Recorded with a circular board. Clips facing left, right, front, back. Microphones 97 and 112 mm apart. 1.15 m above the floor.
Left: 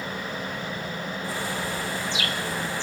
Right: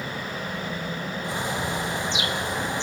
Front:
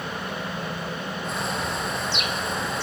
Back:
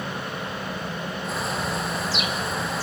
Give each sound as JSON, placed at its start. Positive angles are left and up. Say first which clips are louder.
{"t": 1.2, "sound": "a bird", "louder": "right 3 dB, back 1 dB", "azimuth_deg": -95, "distance_m": 0.9}